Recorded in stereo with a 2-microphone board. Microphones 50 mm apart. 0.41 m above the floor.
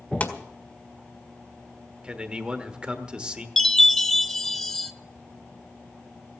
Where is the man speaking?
20° right (ahead or behind), 1.2 m.